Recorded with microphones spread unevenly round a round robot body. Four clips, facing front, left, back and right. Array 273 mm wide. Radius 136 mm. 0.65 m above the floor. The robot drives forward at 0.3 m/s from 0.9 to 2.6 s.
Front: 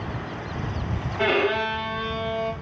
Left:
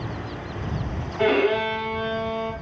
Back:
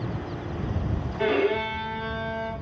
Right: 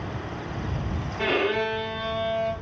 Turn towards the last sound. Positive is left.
turn(degrees=25)